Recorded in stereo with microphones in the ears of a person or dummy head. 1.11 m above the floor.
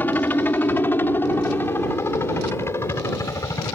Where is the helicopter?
10° left (ahead or behind); by 3.8 s 20° left (ahead or behind).